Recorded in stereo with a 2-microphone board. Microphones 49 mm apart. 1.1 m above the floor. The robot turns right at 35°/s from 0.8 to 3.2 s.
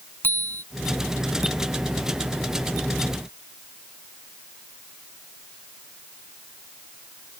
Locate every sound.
0.2 s a bicycle bell: 45° left (ahead or behind)